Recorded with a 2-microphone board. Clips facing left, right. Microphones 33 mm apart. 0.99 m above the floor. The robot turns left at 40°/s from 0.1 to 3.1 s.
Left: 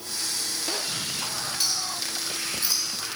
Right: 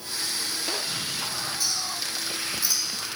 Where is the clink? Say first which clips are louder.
Left 1 dB; 80° left, 2 m; by 2.9 s 35° left (ahead or behind), 2 m.